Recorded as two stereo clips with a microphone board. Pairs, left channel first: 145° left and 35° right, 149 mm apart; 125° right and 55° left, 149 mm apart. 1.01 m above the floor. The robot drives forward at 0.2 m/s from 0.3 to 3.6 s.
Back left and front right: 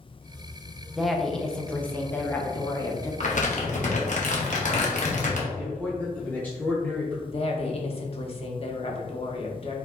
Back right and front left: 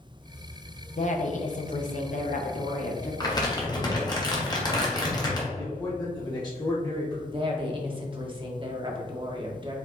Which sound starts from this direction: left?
A woman speaking, at 7.3 s.